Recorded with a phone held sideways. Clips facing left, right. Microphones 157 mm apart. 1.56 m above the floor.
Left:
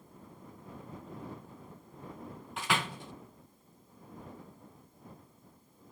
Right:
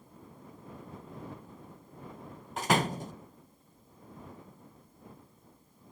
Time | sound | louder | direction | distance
2.6 | a door slam | right 6 dB | 40° right (ahead or behind) | ?